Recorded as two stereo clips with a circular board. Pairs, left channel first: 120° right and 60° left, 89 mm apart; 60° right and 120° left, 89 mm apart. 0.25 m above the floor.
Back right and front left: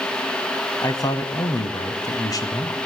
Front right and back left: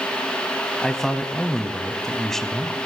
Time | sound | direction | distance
0.8 | a man speaking | 145° right | 1.5 m